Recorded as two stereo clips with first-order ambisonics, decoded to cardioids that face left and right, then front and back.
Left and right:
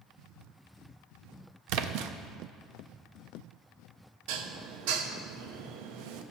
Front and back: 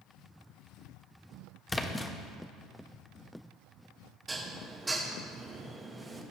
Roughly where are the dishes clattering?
Right.